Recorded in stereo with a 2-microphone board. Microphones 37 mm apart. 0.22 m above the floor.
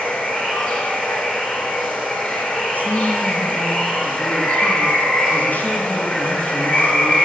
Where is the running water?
40° left (ahead or behind), 3 m.